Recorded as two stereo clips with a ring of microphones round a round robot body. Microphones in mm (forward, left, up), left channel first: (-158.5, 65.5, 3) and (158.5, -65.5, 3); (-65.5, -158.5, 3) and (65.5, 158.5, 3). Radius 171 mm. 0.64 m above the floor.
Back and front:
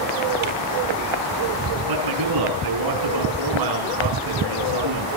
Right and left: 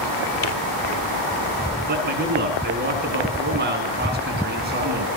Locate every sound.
0.4 s tearing paper: 65° right, 1.5 m
1.9 s a man speaking: 5° left, 7 m